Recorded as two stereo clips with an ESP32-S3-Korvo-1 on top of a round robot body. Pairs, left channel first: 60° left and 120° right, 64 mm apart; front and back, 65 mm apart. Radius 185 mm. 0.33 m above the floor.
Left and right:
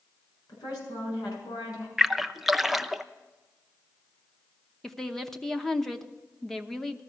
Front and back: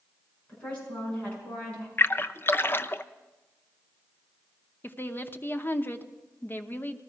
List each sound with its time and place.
0.5 s a woman speaking: 70° left, 5.5 m
2.0 s a splash: 35° right, 0.7 m
4.8 s a woman speaking: 20° right, 1.0 m